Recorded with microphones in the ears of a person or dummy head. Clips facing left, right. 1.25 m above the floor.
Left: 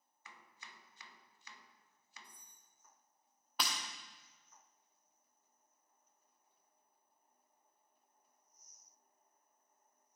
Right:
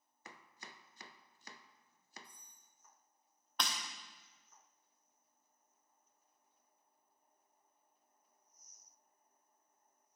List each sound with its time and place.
0.2 s chopping: 35° right (ahead or behind), 0.5 m
2.2 s cutlery clinking: 20° left (ahead or behind), 3 m
3.6 s breaking glass: 5° left (ahead or behind), 1.3 m